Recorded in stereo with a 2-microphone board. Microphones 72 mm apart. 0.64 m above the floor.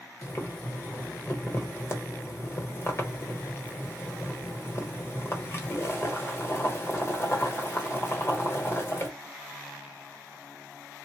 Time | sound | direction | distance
0.2 | boiling | 35° left (ahead or behind) | 1.0 m